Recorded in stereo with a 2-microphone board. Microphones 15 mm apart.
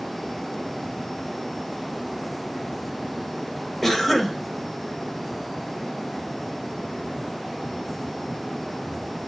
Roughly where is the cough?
Centre.